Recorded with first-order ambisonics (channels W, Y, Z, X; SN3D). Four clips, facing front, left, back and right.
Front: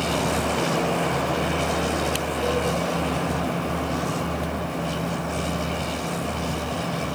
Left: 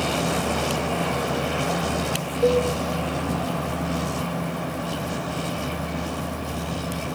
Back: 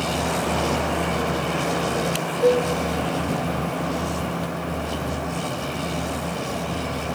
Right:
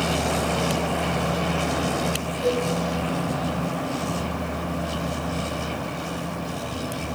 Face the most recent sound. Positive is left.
turn(degrees=120)